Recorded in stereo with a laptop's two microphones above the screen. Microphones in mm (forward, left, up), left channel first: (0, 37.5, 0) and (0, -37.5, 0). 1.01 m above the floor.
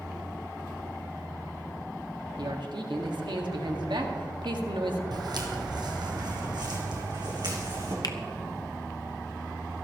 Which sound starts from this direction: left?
A finger snap, at 8.0 s.